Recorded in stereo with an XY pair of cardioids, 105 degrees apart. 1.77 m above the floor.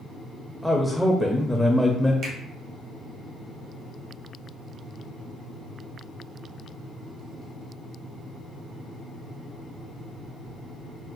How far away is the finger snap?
About 1.3 m.